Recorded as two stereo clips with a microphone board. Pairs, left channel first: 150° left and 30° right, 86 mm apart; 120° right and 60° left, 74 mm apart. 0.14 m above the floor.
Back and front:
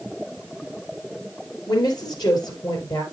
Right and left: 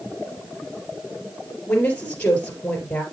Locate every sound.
1.7 s a woman speaking: 175° left, 3 m